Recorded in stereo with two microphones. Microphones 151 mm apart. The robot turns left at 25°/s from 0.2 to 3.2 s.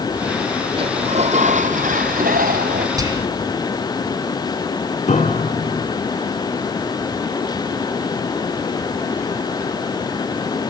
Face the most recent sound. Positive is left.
turn(degrees=55)  # may be behind; listen again after turning